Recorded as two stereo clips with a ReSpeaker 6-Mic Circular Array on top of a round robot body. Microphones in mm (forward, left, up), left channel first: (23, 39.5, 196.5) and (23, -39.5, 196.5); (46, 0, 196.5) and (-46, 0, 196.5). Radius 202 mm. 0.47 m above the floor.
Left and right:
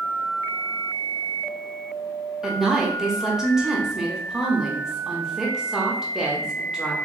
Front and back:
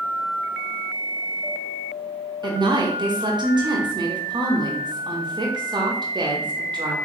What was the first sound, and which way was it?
A woman speaking, 170° right.